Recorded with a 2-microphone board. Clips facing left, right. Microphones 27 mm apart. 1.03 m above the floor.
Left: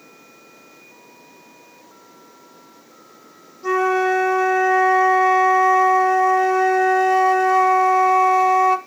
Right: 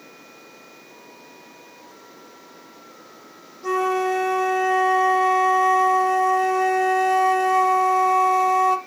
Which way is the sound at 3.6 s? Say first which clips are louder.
Left 3 dB; 10° left (ahead or behind).